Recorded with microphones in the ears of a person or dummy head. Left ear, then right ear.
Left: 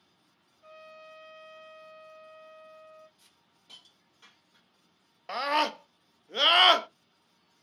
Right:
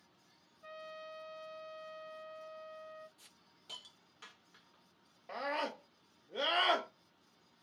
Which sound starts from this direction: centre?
A trumpet, at 0.6 s.